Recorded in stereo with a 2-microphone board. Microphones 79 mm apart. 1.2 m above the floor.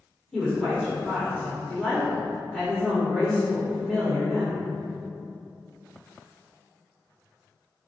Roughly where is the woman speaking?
Centre.